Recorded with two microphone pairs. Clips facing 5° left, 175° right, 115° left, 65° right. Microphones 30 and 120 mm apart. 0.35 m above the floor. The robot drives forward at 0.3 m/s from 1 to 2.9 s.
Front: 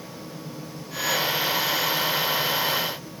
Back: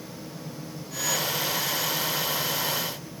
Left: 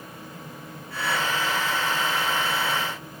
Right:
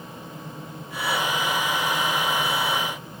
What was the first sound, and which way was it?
Only background noise.